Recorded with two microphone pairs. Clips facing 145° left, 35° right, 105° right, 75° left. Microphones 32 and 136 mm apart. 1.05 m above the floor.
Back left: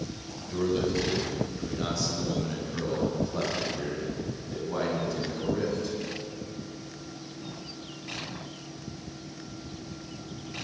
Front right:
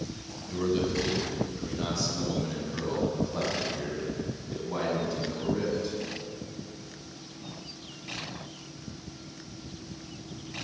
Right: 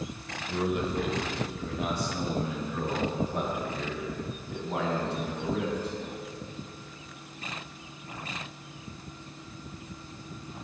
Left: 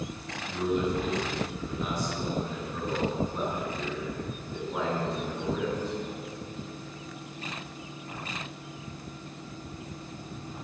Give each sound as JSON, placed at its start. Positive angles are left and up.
{"t": 0.5, "sound": "a man speaking", "azimuth_deg": -125, "distance_m": 4.0}